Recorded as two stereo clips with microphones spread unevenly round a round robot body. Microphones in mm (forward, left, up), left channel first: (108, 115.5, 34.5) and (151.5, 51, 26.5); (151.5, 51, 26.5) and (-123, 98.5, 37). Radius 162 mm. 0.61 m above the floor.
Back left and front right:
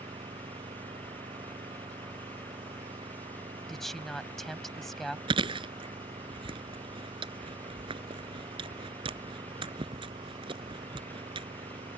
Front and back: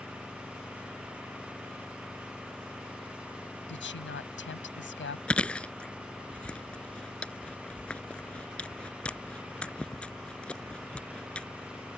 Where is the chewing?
95° right.